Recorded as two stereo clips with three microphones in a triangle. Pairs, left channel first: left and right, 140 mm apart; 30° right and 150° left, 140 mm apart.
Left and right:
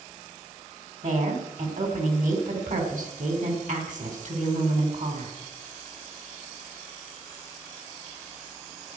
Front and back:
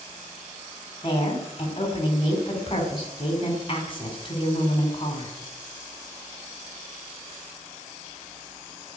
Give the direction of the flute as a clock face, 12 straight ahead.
I don't hear a flute.